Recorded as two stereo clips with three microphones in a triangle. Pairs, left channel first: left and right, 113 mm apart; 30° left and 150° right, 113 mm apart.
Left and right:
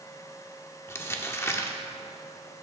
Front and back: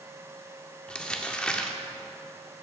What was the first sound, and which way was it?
Crumpling, 95° left.